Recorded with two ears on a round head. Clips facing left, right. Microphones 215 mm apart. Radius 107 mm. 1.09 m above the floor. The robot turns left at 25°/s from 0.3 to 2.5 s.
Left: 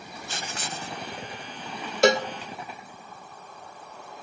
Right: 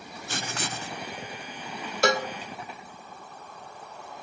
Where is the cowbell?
20° left (ahead or behind), 0.7 m; by 2.3 s 25° left (ahead or behind), 0.7 m.